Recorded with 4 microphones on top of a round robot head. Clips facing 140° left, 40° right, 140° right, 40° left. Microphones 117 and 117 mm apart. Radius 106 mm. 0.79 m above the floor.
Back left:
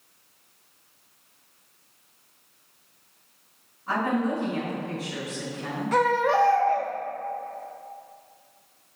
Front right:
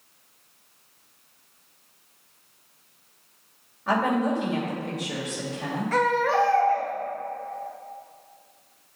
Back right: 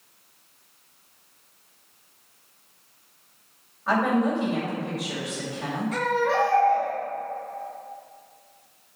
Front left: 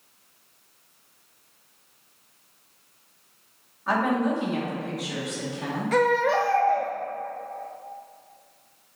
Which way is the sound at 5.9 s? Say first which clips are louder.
Back left 1 dB, front left 3 dB; 70° left.